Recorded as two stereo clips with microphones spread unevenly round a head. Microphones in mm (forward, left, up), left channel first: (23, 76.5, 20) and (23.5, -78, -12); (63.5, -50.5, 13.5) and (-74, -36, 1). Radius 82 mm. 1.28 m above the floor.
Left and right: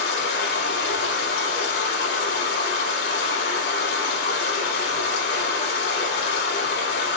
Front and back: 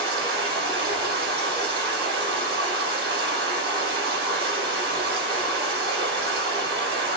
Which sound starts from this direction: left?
Running water, at 0.0 s.